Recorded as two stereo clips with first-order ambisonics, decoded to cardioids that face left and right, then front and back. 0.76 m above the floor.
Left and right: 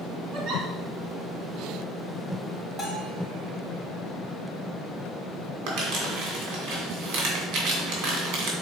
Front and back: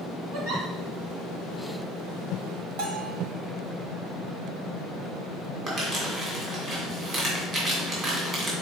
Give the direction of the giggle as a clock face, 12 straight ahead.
5 o'clock.